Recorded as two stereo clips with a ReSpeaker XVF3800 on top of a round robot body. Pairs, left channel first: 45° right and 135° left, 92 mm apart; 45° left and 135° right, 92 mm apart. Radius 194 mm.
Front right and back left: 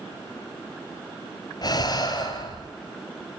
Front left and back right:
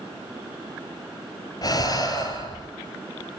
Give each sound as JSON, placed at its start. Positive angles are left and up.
{"t": 1.6, "sound": "breathing", "azimuth_deg": 0, "distance_m": 3.0}